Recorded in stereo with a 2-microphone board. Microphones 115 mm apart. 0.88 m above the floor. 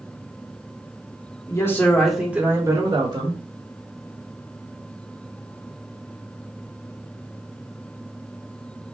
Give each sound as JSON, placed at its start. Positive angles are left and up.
{"t": 1.5, "sound": "a man speaking", "side_deg": 30, "distance_m": 1.4}